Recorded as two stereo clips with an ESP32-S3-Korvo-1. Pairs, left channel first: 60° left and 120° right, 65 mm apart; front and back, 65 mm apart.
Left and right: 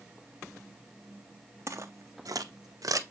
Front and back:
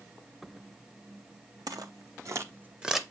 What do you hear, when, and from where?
1.7 s footsteps: 165° right, 1.0 m; by 3.0 s 90° right, 0.6 m